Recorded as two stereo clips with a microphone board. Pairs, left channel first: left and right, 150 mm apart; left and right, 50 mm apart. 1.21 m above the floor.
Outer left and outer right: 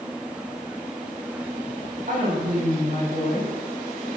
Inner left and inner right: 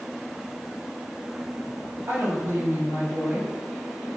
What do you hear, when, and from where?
2.1 s a woman speaking: 65° right (ahead or behind), 9.5 m; by 3.5 s 60° right (ahead or behind), 9.5 m